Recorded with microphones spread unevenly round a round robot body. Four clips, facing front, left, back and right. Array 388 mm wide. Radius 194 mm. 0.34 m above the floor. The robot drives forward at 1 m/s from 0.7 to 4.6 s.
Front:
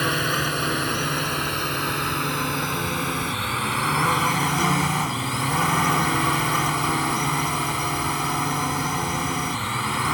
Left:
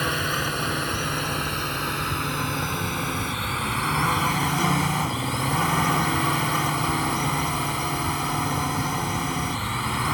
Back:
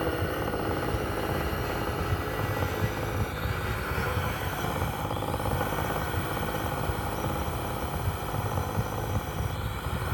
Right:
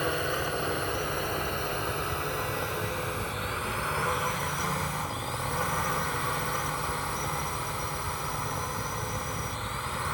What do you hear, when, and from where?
0.0 s a drone: 35° left; by 10.1 s 50° left